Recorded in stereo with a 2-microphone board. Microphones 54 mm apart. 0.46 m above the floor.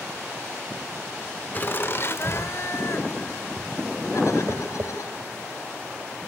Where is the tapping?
55° right (ahead or behind), 2 m.